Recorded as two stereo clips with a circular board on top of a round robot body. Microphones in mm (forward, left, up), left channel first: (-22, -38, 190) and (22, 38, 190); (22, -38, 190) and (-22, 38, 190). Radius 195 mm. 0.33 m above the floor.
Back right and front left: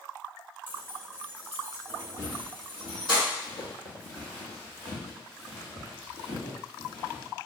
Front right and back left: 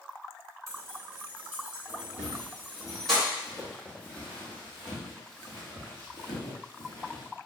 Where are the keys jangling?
175° left, 1.3 m; by 3.2 s 145° right, 2.5 m.